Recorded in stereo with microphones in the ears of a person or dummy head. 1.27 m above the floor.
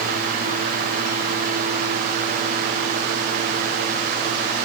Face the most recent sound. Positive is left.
No sound to turn to.